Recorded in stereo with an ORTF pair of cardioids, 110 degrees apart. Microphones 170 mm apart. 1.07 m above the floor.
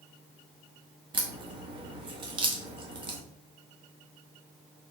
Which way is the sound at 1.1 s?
30° right.